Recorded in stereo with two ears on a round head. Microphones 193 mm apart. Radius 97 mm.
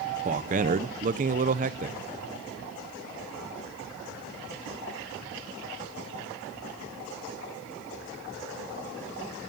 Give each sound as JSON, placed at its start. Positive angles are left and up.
{"t": 0.2, "sound": "a man speaking", "side_deg": -35, "distance_m": 1.0}